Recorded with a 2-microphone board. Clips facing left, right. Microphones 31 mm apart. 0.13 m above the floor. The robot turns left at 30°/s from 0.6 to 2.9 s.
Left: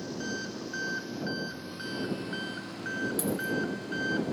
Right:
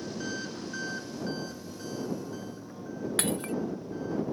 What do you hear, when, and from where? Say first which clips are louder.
0.0 s an engine running: even; 175° left; by 4.3 s 110° left
3.2 s breaking glass: even; 60° right (ahead or behind)